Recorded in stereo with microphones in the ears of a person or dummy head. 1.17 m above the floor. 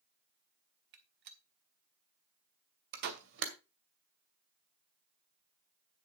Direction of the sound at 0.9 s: 55° right (ahead or behind).